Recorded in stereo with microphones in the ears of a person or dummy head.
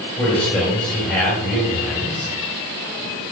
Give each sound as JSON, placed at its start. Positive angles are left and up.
{"t": 0.2, "sound": "a man speaking", "side_deg": 5, "distance_m": 4.0}